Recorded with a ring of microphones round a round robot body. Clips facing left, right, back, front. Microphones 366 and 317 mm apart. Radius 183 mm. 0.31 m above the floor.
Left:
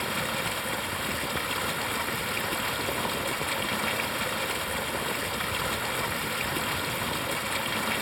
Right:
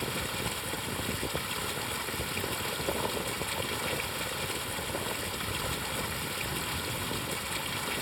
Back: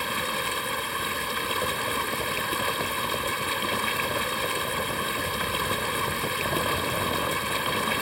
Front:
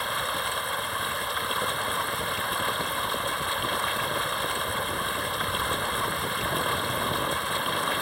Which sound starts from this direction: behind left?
Running water, at 0.0 s.